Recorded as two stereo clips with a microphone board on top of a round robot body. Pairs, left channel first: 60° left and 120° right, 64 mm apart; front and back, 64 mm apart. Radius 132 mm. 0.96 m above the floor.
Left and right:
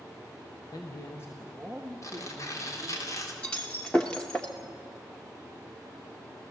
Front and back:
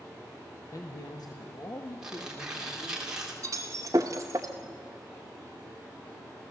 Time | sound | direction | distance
0.7 | a man speaking | 35° left | 1.5 m
2.0 | tearing paper | 100° left | 3 m
3.4 | breaking glass | 130° left | 0.6 m